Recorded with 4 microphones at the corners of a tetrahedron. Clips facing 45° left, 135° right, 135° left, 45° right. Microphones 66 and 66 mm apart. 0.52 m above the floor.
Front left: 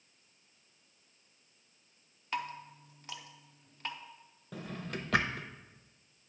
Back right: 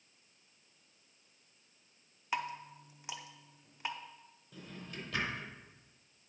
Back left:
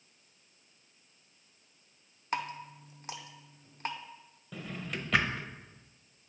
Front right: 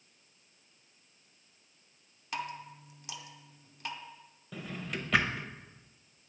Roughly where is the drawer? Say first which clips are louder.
Front left 7 dB, even; ahead left.